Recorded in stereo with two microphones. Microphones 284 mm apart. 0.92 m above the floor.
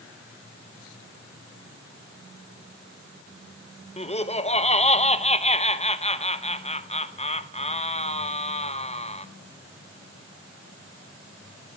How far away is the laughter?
About 0.8 m.